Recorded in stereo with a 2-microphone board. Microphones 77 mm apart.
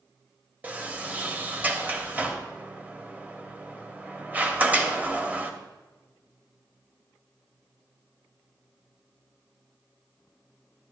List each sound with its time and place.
0.6 s a sliding door: 20° right (ahead or behind), 1.0 m